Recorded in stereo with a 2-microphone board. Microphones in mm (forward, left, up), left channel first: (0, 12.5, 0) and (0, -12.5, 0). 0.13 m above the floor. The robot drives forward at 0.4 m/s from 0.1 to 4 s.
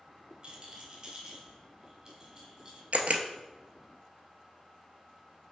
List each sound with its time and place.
0.4 s a rattle: 35° right (ahead or behind), 0.8 m; by 2.8 s 15° right (ahead or behind), 1.6 m
2.9 s a camera shutter: 65° right (ahead or behind), 0.5 m